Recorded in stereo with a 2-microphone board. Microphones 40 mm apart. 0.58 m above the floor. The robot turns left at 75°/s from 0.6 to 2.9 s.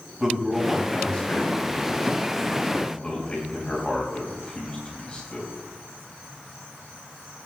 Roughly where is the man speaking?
Centre.